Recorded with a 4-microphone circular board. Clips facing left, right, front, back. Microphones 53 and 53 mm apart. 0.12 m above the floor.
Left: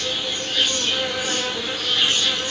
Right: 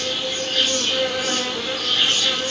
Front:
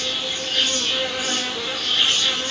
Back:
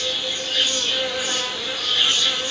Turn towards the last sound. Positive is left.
turn(degrees=-55)